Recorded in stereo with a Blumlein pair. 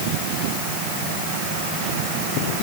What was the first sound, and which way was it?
Only background noise.